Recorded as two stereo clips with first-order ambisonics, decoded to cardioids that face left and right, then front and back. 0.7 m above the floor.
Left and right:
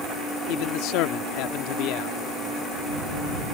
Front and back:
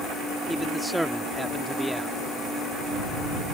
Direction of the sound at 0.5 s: 95° left.